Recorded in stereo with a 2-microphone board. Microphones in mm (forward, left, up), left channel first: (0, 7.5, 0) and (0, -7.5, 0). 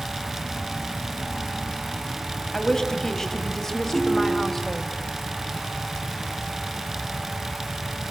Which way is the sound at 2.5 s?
35° left (ahead or behind).